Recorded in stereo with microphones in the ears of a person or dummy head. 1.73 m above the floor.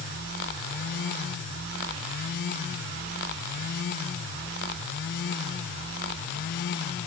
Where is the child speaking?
No child speaking in this recording.